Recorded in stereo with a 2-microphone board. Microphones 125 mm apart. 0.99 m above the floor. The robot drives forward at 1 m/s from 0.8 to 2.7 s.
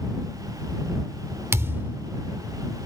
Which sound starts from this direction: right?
A thud, at 1.5 s.